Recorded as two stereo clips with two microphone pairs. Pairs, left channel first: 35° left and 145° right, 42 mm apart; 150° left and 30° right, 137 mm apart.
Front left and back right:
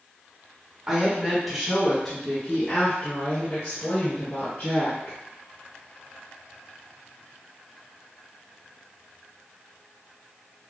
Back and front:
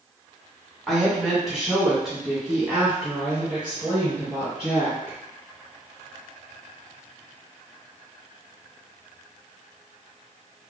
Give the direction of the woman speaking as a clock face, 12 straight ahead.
4 o'clock.